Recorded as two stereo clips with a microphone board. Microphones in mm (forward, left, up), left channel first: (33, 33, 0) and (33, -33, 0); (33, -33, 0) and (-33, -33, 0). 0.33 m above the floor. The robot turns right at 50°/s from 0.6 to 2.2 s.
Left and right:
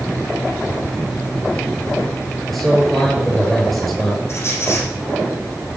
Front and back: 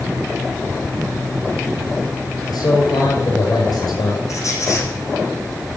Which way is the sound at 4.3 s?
40° left.